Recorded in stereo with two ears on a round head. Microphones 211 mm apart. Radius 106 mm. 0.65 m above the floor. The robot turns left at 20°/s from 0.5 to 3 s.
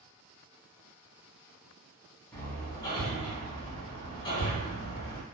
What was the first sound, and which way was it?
Hammering, 10° left (ahead or behind).